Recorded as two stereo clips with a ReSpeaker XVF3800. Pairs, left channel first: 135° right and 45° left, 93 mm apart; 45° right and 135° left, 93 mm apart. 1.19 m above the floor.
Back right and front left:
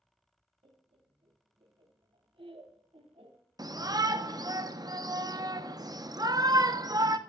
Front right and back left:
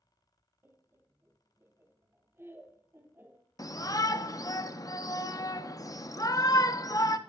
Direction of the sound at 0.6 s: 70° left.